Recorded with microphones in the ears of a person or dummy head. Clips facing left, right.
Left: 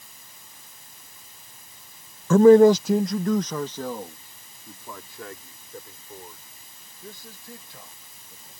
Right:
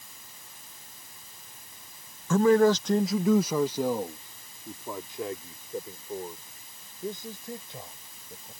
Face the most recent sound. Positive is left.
turn(degrees=-20)  # may be behind; listen again after turning